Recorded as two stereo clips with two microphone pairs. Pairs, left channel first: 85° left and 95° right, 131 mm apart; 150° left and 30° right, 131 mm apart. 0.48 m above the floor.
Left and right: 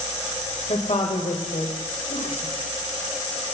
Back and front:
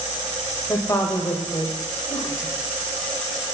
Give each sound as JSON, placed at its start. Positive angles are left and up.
{"t": 0.7, "sound": "a woman speaking", "azimuth_deg": 90, "distance_m": 2.0}